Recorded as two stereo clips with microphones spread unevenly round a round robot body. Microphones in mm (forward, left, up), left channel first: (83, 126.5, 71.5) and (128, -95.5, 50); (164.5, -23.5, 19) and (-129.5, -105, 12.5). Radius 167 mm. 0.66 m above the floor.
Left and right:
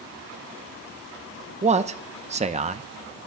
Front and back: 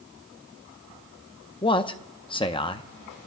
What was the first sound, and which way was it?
A man speaking, 50° right.